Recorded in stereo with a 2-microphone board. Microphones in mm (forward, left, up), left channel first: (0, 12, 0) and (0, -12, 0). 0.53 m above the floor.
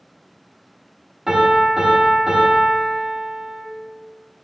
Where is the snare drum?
No snare drum in this recording.